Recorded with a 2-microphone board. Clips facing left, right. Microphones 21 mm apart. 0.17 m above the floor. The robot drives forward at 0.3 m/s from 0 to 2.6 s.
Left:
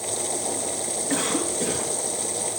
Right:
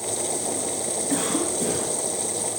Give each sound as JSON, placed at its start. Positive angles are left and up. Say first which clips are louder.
{"t": 1.1, "sound": "a cough", "louder": "even", "side_deg": 15, "distance_m": 1.2}